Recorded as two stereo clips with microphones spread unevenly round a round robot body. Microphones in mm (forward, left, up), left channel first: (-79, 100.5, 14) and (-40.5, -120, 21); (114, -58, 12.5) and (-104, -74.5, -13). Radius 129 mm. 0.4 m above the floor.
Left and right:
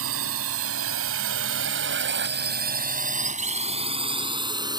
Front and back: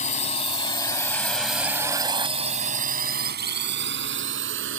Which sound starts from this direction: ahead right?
A drone, at 0.0 s.